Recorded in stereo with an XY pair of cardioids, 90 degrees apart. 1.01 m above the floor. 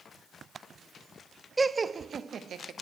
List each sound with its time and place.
1.6 s laughter: 20° right, 0.7 m; by 2.7 s 65° right, 1.4 m